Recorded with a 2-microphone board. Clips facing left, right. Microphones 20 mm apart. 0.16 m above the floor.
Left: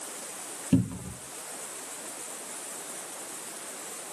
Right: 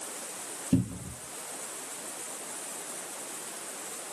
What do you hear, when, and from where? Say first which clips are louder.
0.7 s a cupboard door: left 2 dB; 45° left (ahead or behind), 1.1 m